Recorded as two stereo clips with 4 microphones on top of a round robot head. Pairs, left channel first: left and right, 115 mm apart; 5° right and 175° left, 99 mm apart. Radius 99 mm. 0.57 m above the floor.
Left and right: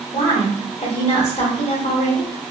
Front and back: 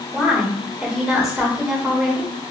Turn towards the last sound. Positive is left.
turn(degrees=90)